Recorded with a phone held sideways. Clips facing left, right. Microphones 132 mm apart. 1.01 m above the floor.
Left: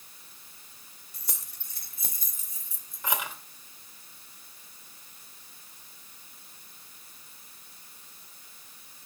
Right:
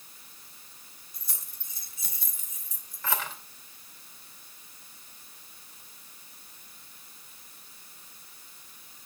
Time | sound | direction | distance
1.1 | keys jangling | 80° left | 2.5 m